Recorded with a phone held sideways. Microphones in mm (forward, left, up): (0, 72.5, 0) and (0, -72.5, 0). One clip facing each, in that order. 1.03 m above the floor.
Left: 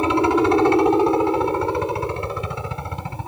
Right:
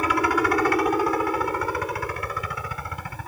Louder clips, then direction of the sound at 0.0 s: Left 6 dB; 25° left (ahead or behind).